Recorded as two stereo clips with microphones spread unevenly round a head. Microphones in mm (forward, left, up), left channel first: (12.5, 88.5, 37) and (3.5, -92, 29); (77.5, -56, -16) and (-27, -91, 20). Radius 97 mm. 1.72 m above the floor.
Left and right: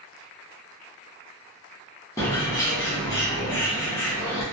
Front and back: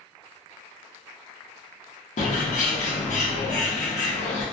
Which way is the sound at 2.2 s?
15° left.